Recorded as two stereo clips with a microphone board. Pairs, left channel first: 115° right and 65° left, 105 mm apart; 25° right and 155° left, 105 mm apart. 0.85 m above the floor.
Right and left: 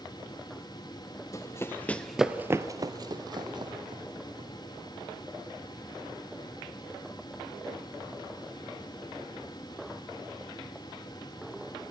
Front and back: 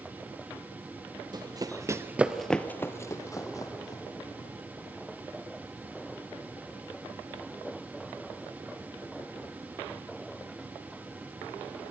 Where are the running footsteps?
165° right, 1.4 m; by 4.5 s 25° left, 3 m.